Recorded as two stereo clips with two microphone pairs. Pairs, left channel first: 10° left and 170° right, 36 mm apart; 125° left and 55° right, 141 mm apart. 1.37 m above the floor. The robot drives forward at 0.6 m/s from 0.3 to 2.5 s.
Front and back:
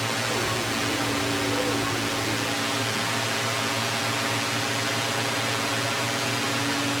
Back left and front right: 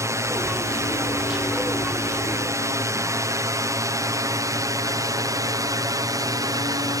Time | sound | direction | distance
0.0 | a drone | 70° right | ?